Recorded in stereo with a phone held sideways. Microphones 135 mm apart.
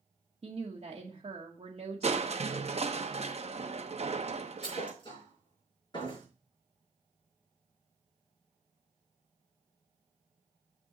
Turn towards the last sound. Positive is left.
turn(degrees=35)  # may be behind; listen again after turning